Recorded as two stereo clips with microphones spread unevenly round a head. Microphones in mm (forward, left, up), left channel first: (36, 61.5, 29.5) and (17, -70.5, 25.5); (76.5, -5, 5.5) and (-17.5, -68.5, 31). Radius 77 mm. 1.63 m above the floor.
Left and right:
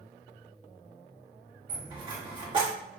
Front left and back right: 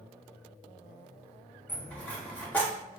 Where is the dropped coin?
45° right, 2 m.